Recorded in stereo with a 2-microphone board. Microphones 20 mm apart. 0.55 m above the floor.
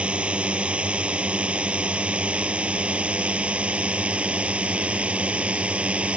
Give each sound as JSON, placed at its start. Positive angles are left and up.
{"t": 0.0, "sound": "a drone", "side_deg": -70}